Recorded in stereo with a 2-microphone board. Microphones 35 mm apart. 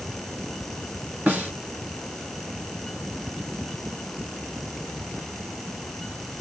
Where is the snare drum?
50° right (ahead or behind), 2 m.